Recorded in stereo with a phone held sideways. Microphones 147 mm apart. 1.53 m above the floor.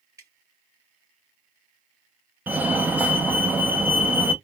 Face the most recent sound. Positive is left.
turn(degrees=-10)  # may be behind; listen again after turning